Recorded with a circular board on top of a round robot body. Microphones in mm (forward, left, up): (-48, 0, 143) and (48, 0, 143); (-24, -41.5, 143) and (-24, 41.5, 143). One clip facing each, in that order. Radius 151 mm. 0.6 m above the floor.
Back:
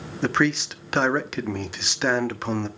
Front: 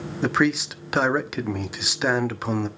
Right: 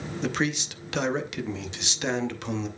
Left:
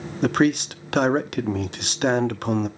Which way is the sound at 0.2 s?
85° left.